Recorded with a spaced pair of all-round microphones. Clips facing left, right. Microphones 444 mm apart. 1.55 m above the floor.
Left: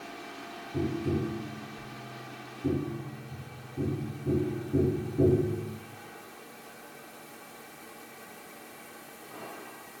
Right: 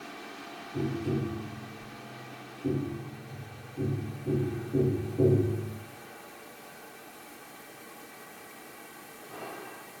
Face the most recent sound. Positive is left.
turn(degrees=25)  # may be behind; listen again after turning